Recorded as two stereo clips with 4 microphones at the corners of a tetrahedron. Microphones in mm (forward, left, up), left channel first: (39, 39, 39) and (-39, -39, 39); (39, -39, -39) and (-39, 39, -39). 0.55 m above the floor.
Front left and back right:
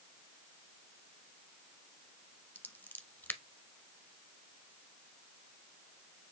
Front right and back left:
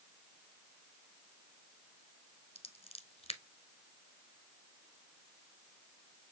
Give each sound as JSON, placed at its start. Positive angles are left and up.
{"t": 2.5, "sound": "scissors", "azimuth_deg": -25, "distance_m": 0.9}